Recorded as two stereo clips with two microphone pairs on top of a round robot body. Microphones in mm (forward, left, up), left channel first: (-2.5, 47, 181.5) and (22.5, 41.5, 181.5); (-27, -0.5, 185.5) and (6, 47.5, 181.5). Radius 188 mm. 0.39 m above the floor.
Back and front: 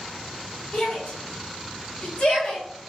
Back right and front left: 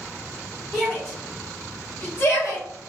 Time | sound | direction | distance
0.7 | a shout | 145° left | 1.5 m